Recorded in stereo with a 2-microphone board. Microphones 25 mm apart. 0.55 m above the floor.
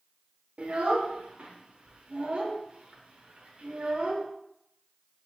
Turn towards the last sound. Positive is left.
turn(degrees=-55)  # may be behind; listen again after turning